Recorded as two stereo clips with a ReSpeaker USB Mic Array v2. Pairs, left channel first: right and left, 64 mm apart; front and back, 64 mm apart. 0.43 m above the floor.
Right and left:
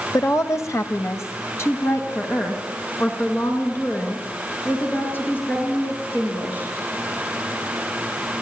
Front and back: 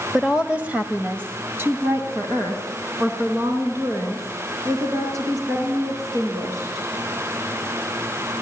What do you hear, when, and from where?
0.1 s a woman speaking: 95° right, 1.3 m; by 6.8 s 145° right, 7.5 m